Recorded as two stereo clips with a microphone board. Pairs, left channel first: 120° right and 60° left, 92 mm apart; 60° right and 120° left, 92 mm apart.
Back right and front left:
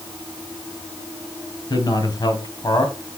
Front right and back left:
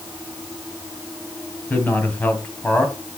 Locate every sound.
1.7 s a man speaking: 125° right, 2 m